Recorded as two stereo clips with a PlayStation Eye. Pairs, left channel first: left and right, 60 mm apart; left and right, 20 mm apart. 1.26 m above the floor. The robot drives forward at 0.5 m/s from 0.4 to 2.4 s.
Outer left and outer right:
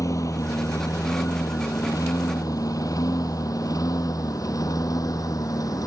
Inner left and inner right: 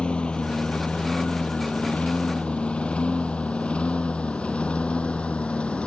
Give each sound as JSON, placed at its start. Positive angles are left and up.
{"t": 0.0, "sound": "a lawn mower", "side_deg": 65}